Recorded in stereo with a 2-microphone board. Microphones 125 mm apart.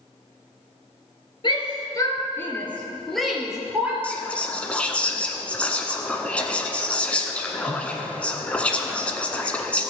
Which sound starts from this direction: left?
A shout, at 1.4 s.